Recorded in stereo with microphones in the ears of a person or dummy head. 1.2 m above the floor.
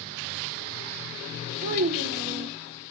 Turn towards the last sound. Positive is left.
turn(degrees=-40)  # may be behind; listen again after turning